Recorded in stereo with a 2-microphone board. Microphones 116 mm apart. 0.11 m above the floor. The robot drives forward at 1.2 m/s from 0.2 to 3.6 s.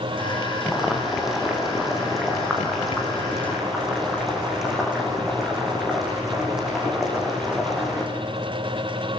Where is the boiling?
5° right (ahead or behind), 5 m; by 8.1 s centre (ahead or behind), 8.5 m.